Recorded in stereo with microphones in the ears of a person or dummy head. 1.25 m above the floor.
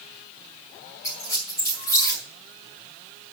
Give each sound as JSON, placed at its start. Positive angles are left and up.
{"t": 1.0, "sound": "a squeak", "side_deg": 10, "distance_m": 2.5}